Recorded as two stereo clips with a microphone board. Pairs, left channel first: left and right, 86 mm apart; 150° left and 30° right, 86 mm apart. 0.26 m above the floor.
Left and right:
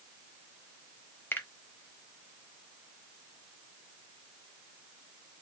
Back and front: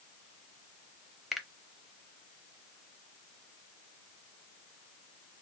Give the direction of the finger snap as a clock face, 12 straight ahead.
10 o'clock.